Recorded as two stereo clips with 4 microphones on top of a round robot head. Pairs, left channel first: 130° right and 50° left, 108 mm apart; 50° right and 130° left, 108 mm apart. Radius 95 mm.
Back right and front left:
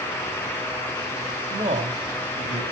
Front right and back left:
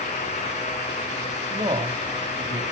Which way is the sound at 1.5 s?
85° left.